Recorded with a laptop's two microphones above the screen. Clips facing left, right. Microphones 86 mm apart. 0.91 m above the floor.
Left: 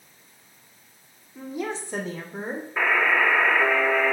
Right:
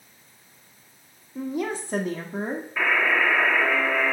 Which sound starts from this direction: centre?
A buzzer, at 2.8 s.